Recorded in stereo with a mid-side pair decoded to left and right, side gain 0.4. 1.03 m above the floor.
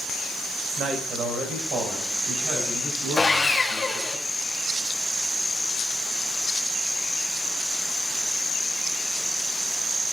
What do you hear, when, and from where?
0.8 s a man speaking: 70° right, 5 m
3.2 s sawing: 25° left, 1.9 m